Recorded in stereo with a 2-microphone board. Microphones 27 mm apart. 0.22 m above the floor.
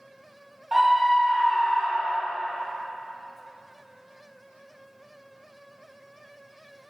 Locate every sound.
0.7 s a scream: 15° right (ahead or behind), 1.0 m; by 2.3 s 25° left (ahead or behind), 1.4 m